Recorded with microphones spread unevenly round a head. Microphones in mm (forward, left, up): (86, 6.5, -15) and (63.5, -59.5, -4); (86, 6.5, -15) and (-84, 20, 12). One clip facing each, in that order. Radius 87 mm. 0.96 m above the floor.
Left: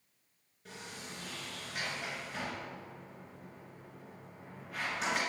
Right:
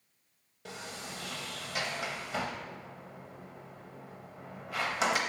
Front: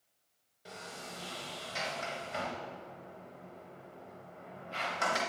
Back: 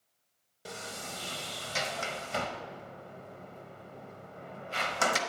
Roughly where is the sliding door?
Behind right.